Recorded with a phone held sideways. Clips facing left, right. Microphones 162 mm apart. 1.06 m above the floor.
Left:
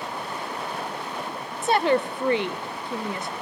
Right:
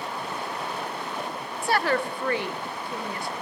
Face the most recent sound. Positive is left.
turn(degrees=20)  # may be behind; listen again after turning